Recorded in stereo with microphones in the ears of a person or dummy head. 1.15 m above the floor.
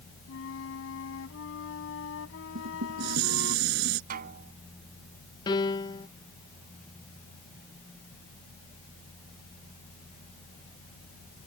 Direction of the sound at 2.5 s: 75° right (ahead or behind).